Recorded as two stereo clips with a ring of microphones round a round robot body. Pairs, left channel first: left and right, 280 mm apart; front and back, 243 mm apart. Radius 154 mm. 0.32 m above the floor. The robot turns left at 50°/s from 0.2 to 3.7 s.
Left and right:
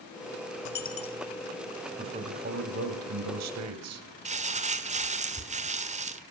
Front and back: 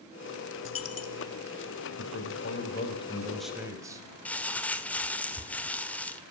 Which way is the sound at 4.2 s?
75° right.